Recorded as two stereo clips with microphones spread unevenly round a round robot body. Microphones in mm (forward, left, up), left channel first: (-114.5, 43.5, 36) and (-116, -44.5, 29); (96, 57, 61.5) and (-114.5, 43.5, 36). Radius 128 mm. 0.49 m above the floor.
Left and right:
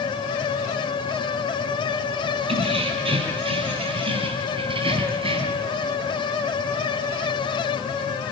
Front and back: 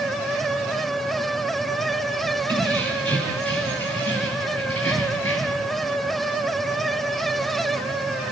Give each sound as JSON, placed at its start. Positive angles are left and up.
{"t": 2.5, "sound": "keys jangling", "azimuth_deg": -80, "distance_m": 9.0}